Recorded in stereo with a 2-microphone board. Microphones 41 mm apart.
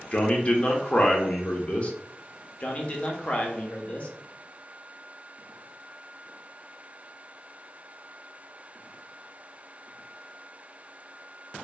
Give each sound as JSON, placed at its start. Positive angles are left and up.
{"t": 0.1, "sound": "a man speaking", "side_deg": 30, "distance_m": 0.5}
{"t": 2.6, "sound": "a man speaking", "side_deg": 30, "distance_m": 0.6}